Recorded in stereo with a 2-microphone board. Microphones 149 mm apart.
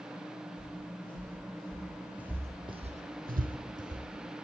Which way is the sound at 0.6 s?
15° left (ahead or behind).